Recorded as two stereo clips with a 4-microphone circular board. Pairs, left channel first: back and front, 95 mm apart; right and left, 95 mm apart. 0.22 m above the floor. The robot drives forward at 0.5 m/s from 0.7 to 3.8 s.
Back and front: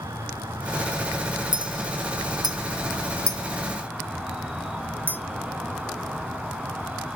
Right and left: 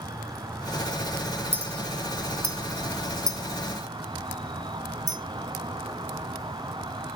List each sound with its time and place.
0.0 s an insect: 45° left, 2.5 m; by 7.2 s 85° left, 2 m
1.5 s a clink: 25° left, 1.8 m; by 5.2 s 60° left, 1.1 m